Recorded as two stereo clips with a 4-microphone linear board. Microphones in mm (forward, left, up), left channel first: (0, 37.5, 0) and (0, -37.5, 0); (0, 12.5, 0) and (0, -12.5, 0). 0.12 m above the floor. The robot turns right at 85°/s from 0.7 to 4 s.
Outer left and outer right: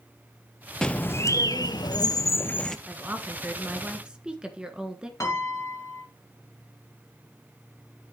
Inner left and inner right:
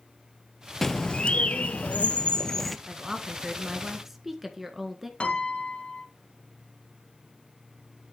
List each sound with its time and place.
0.8 s a bird: 10° left, 0.6 m; by 2.8 s 175° left, 0.6 m
2.9 s a woman speaking: 25° right (ahead or behind), 1.6 m; by 5.1 s 10° right (ahead or behind), 1.6 m
5.2 s a piano: 45° left (ahead or behind), 1.9 m